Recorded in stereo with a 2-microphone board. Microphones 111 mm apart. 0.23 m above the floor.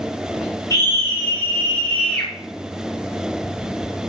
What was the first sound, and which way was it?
A scream, 25° left (ahead or behind).